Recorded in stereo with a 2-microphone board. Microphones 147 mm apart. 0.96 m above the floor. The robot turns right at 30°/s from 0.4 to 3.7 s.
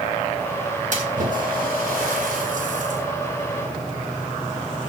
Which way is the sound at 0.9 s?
60° right (ahead or behind).